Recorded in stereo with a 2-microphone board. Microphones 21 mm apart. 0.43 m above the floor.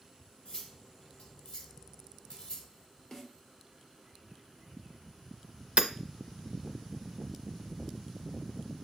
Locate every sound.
0.5 s cutlery clinking: 50° left (ahead or behind), 1.3 m
3.1 s a snare drum: 30° left (ahead or behind), 1.0 m
5.8 s hammering: 65° right (ahead or behind), 0.6 m